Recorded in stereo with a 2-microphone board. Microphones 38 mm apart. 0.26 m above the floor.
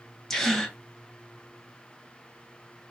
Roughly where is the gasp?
Centre.